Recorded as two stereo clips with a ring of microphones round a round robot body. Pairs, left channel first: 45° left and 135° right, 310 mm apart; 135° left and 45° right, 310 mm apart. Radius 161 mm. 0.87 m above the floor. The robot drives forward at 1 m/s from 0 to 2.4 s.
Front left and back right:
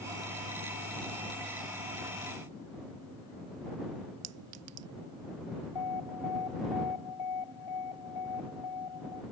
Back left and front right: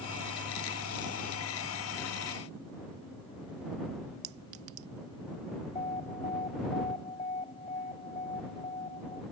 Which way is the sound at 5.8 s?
65° left.